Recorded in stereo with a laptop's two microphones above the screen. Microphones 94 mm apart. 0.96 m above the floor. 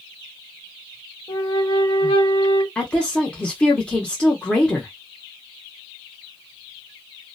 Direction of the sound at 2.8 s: 10° left (ahead or behind).